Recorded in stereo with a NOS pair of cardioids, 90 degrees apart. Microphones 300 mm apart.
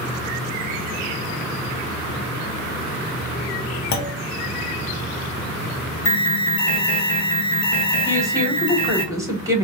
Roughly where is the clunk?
Ahead left.